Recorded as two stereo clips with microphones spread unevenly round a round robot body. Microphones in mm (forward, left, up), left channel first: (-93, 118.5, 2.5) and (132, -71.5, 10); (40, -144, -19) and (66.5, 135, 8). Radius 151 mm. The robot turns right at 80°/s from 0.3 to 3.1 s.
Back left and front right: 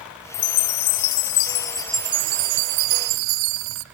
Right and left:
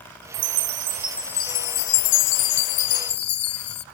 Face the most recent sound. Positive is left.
turn(degrees=-40)